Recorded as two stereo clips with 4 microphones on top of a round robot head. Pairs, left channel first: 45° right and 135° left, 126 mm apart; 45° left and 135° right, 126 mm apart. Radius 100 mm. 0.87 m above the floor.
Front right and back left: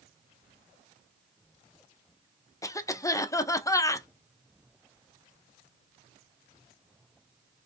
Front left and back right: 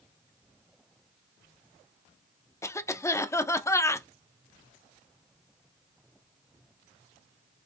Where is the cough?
5° right, 0.8 m.